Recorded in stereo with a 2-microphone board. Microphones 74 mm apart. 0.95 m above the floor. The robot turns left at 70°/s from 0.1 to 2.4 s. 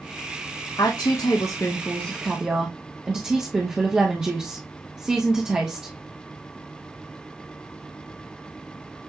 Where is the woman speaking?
100° left, 1.1 m; by 6.0 s 15° right, 1.1 m.